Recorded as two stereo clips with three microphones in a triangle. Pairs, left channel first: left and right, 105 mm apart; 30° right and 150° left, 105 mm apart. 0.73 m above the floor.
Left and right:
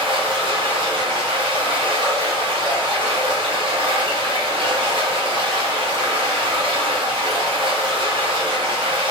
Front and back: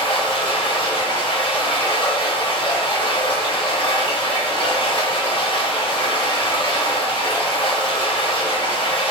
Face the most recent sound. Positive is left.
turn(degrees=-60)